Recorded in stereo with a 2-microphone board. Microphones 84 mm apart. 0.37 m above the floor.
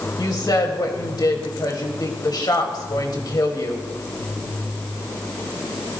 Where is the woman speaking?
50° left (ahead or behind), 1.9 m.